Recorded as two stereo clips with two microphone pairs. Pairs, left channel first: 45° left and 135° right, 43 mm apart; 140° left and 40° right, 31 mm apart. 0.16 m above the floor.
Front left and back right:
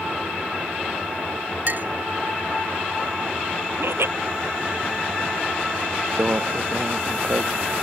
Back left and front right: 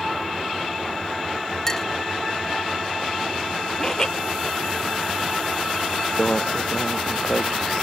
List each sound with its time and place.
1.7 s a clink: 155° right
3.8 s laughter: 150° right
6.2 s a microwave: 165° right